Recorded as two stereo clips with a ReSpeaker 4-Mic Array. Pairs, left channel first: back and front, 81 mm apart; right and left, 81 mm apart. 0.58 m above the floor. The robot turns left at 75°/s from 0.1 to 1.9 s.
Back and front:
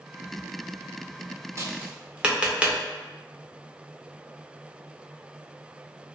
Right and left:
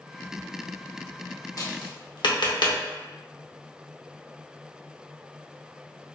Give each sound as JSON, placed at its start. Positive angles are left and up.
{"t": 1.6, "sound": "tapping", "azimuth_deg": -50, "distance_m": 0.5}